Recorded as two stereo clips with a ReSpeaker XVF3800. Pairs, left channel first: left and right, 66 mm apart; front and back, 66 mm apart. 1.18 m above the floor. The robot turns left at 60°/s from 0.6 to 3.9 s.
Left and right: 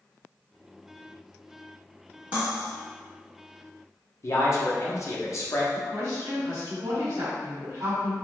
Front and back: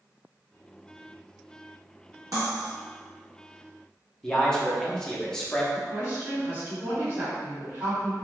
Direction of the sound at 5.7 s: 120° right.